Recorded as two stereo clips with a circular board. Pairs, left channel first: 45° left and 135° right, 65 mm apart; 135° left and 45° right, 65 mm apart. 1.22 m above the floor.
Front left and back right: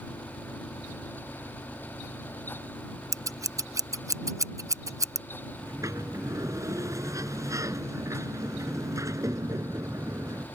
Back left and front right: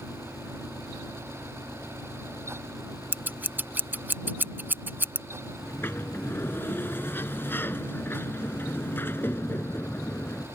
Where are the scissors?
105° right.